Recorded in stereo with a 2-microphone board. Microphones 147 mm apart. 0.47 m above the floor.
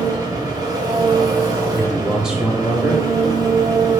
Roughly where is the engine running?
Right.